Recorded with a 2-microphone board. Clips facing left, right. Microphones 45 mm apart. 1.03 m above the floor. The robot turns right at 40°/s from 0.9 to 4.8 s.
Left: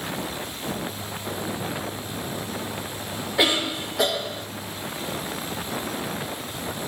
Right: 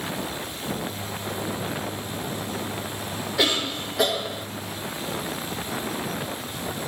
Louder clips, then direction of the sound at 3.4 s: Left 2 dB; 155° left.